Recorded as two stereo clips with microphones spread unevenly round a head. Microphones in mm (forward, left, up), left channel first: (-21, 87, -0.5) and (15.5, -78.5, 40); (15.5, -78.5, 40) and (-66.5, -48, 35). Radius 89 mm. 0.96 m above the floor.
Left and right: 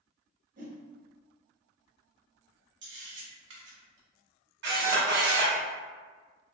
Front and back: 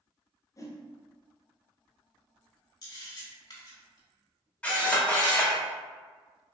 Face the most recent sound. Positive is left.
turn(degrees=-95)